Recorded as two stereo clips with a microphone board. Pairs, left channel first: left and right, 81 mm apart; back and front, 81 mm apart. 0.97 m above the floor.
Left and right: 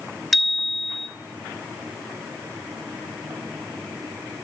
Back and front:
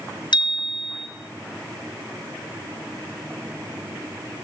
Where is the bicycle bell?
Straight behind, 3 m.